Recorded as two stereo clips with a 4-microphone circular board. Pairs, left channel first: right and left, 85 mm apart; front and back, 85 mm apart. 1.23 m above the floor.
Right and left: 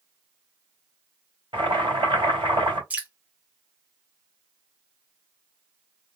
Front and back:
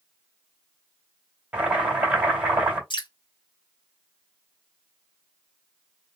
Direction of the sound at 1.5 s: 105° left.